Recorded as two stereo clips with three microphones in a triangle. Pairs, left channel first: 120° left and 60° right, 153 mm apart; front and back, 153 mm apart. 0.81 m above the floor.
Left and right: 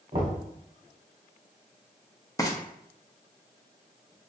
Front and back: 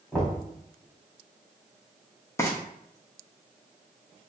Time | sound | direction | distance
0.1 | knocking | 85° right | 1.5 m
2.4 | frying | 60° left | 0.8 m